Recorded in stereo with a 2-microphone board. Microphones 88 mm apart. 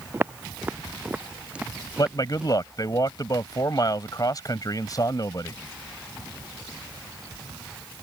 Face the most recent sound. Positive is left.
turn(degrees=45)  # may be behind; listen again after turning